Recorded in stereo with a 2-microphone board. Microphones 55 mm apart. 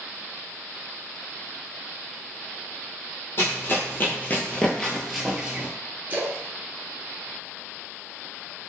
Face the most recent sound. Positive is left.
turn(degrees=-35)  # may be behind; listen again after turning